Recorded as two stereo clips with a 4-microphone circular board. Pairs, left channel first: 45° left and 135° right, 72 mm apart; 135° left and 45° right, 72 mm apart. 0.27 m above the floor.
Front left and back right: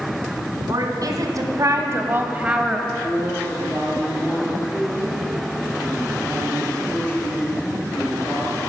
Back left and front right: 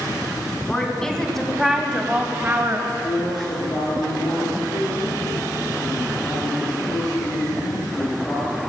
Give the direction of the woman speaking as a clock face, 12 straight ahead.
5 o'clock.